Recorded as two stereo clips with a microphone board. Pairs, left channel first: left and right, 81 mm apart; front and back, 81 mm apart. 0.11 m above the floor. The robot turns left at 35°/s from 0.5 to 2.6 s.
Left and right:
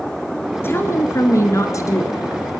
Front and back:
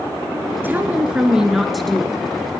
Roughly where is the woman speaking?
Behind left.